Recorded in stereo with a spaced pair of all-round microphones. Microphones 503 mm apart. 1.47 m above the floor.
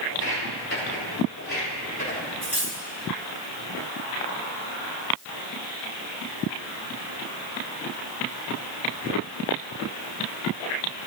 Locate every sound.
0.1 s footsteps: 35° left (ahead or behind), 3 m; by 2.3 s 25° left (ahead or behind), 4 m
2.4 s cutlery clinking: 45° right (ahead or behind), 1.4 m